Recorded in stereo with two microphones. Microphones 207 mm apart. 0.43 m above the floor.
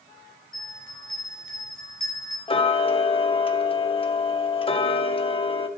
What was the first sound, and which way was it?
A bell, 80° left.